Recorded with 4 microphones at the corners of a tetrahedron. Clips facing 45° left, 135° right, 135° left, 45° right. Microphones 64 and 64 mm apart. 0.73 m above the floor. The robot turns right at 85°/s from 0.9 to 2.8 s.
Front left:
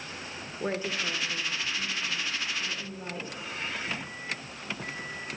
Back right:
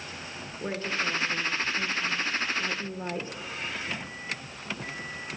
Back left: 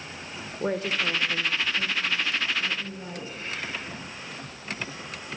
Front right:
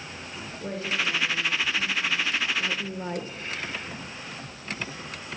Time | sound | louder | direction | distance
0.6 | a woman speaking | back right 1 dB, back left 3 dB | 115° left | 1.8 m